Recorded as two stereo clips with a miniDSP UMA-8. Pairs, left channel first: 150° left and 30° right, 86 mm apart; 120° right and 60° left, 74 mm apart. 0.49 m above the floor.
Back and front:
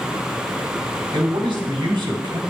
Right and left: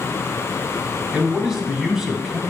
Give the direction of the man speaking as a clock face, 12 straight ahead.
12 o'clock.